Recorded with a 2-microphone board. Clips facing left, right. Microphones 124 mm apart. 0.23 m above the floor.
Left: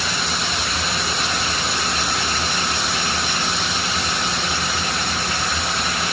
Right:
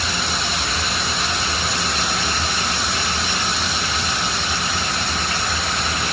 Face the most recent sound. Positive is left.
No sound to turn to.